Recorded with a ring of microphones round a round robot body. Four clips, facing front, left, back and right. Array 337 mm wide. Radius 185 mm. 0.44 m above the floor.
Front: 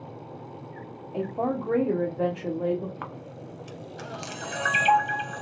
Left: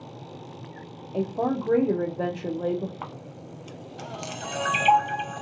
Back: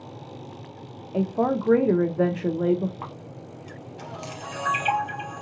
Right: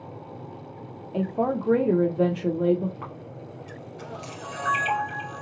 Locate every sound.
1.1 s a woman speaking: 160° right, 0.8 m
3.0 s a camera shutter: 65° left, 0.6 m